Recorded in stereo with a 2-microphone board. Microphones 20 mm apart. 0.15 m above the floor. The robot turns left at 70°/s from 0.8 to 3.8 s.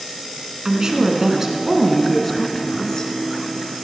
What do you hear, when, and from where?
0.7 s a woman speaking: 90° right, 1.6 m; by 3.1 s 110° left, 1.6 m